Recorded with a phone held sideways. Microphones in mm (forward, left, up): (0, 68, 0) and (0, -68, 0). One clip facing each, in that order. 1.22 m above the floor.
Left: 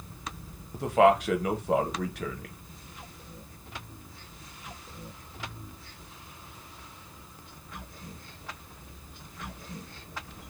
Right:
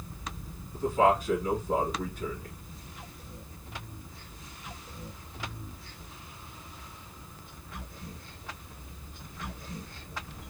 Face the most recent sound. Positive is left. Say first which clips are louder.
# left 3 dB
turn(degrees=80)